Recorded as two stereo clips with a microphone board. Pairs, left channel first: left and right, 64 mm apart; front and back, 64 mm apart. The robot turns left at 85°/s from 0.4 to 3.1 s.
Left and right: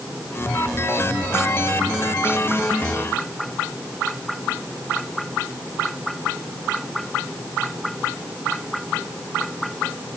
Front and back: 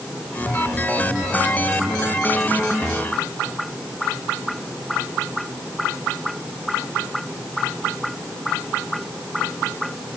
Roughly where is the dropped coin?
No dropped coin in this recording.